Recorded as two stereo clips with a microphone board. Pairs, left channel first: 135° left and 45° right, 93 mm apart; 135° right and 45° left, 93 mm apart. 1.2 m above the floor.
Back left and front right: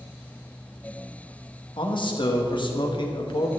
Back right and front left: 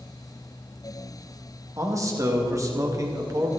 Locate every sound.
1.8 s a man speaking: 100° left, 1.6 m